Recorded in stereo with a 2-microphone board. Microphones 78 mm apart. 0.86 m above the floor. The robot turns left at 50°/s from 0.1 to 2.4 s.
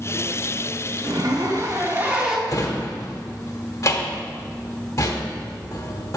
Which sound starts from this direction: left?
A drawer, at 2.5 s.